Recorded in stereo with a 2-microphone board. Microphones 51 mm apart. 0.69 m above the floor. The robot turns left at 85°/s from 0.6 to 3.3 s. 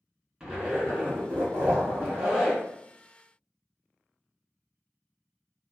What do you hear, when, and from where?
0.4 s a zipper: 15° right, 1.7 m; by 2.6 s 175° left, 1.7 m